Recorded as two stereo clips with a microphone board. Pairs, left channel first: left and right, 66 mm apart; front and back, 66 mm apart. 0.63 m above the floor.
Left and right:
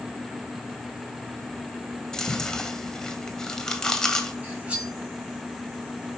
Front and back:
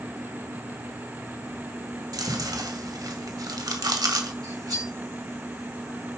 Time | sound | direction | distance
2.1 | chewing | 170° left | 2.0 m
4.4 | cutlery clinking | 160° right | 4.5 m